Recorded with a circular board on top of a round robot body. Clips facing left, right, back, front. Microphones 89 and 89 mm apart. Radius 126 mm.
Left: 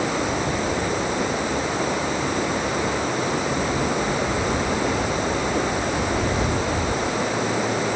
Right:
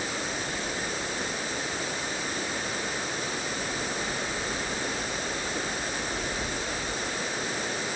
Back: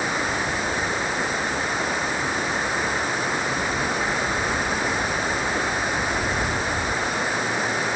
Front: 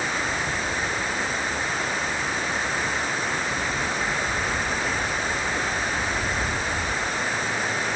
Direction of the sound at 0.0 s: 100° left.